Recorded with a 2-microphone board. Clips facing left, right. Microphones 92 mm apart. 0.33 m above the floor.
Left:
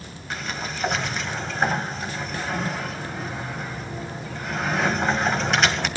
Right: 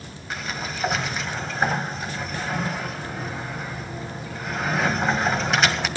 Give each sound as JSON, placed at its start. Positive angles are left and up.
{"t": 0.3, "sound": "a sliding door", "side_deg": 0, "distance_m": 1.9}